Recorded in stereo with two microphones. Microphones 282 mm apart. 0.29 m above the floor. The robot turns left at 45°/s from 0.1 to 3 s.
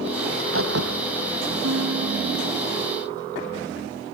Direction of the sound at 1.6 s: 110° right.